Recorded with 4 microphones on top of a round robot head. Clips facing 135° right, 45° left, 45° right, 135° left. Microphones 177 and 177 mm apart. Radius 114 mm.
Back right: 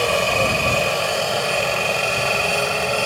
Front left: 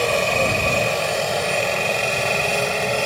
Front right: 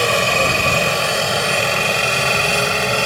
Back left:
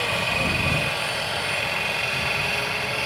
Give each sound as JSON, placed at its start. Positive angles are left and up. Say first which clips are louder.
{"t": 0.0, "sound": "a helicopter", "louder": "even, front right 10 dB", "azimuth_deg": -40}